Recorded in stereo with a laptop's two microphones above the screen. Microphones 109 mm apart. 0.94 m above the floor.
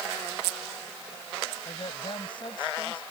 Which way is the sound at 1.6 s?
50° left (ahead or behind).